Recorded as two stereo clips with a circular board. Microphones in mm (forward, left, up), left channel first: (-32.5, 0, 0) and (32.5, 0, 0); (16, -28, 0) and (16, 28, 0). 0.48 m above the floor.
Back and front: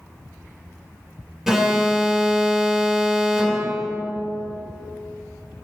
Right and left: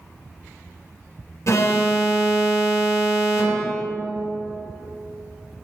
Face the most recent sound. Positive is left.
turn(degrees=-80)